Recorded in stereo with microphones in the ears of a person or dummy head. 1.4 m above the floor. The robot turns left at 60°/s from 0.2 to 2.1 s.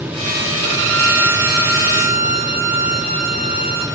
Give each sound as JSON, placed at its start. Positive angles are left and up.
{"t": 0.6, "sound": "a violin", "azimuth_deg": -60, "distance_m": 2.5}